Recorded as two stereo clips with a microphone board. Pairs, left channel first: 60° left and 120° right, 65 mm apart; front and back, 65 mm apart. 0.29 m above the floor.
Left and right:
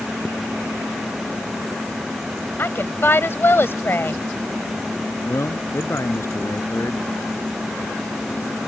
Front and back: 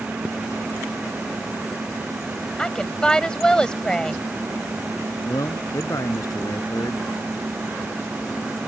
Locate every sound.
2.6 s a woman speaking: 70° left
5.2 s a man speaking: 20° left